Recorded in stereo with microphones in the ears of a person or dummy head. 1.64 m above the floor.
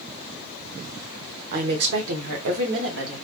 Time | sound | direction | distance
1.5 | a woman speaking | 50° right (ahead or behind) | 0.8 m